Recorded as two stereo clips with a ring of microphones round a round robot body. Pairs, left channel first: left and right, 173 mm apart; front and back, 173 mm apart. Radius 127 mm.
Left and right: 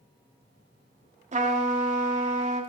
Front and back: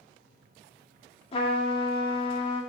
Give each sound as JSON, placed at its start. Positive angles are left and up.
{"t": 1.3, "sound": "a trumpet", "azimuth_deg": -55, "distance_m": 1.9}